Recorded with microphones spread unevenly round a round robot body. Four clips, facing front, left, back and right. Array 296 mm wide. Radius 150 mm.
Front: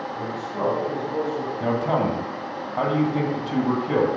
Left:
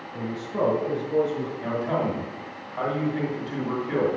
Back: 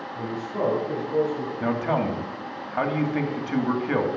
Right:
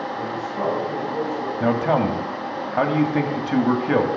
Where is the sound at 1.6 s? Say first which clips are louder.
Right 8 dB, front 2 dB; 90° right, 2.5 m.